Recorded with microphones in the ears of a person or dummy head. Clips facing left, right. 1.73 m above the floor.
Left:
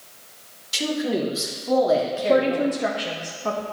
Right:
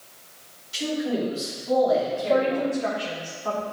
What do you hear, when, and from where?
0.7 s a man speaking: 75° left (ahead or behind), 1.9 m; by 2.7 s 10° left (ahead or behind), 1.1 m
2.2 s a woman speaking: 50° left (ahead or behind), 0.8 m